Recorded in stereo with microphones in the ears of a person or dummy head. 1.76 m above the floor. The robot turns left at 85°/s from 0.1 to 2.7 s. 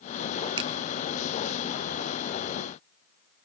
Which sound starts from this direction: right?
A finger snap, at 0.6 s.